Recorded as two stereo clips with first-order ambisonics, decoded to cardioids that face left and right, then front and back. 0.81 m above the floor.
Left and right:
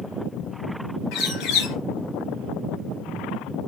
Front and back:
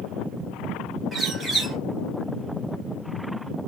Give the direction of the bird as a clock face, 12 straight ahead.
8 o'clock.